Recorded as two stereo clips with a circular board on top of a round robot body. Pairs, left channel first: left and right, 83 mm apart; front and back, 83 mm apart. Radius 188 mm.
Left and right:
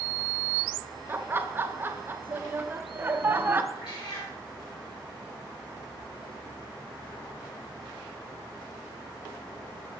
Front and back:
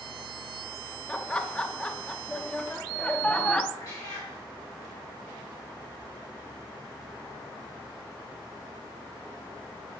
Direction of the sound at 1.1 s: 65° right.